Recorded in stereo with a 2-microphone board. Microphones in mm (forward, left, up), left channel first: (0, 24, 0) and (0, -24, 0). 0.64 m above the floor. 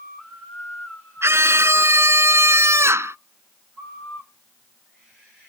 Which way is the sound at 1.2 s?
60° right (ahead or behind).